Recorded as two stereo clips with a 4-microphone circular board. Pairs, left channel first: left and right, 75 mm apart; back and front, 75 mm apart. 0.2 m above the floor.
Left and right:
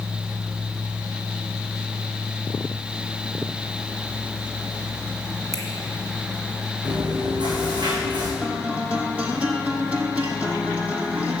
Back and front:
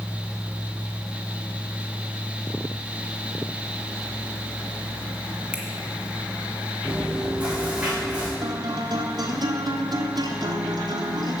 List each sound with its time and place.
5.5 s a finger snap: 70° right, 1.7 m
6.8 s chewing: 75° right, 3.5 m
8.4 s a guitar: 15° right, 1.3 m